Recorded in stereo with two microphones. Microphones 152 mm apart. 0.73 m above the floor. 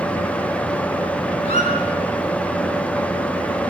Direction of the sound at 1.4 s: 45° left (ahead or behind).